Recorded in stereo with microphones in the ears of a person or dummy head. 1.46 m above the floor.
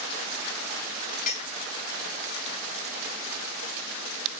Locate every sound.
1.3 s a clink: 40° left (ahead or behind), 1.1 m